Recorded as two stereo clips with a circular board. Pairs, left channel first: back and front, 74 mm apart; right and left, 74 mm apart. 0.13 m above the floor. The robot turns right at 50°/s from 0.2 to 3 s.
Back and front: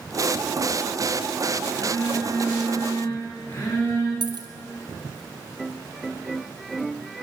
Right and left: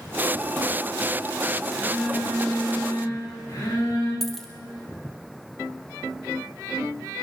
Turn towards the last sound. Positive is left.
turn(degrees=-5)